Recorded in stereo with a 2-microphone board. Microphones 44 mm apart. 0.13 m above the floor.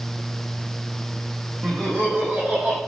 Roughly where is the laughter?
Right.